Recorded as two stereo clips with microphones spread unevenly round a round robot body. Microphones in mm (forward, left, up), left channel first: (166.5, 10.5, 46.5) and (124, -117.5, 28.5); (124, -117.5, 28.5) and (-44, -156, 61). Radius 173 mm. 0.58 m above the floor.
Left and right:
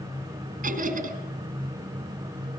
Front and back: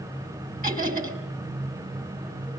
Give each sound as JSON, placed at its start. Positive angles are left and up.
{"t": 0.6, "sound": "laughter", "azimuth_deg": -125, "distance_m": 3.5}